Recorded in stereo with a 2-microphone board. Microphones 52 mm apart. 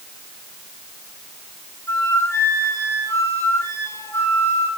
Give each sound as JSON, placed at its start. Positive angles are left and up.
{"t": 1.9, "sound": "a flute", "side_deg": 65, "distance_m": 8.5}